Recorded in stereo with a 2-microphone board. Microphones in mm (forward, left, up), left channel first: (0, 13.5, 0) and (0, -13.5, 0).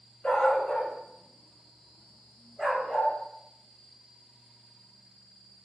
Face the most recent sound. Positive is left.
turn(degrees=-20)  # may be behind; listen again after turning